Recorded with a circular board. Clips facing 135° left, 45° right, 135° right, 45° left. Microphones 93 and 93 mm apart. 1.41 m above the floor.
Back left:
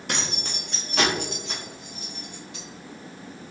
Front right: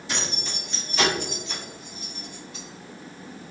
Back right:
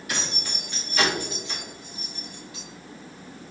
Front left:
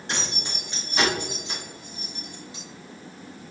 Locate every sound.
0.1 s keys jangling: 105° left, 1.5 m; by 2.6 s 110° left, 3 m